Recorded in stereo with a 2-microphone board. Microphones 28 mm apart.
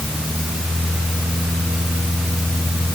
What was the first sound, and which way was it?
Only background noise.